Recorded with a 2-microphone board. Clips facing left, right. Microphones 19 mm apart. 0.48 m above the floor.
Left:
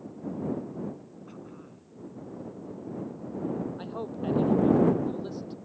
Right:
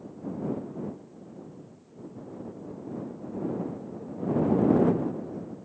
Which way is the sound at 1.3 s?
75° left (ahead or behind).